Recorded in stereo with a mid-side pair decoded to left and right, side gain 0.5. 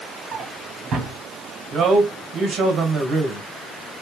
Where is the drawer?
65° right, 1.9 m.